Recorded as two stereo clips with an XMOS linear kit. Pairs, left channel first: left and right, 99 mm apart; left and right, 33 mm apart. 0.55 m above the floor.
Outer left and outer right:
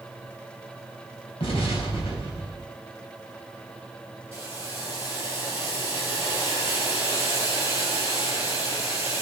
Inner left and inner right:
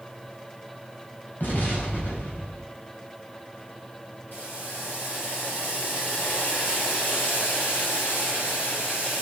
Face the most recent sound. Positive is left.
turn(degrees=70)  # may be behind; listen again after turning